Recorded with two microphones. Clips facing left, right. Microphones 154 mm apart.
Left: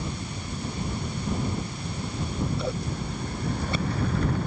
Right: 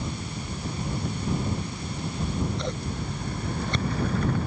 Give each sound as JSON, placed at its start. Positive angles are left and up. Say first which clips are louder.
{"t": 2.2, "sound": "scissors", "louder": "even", "side_deg": 5}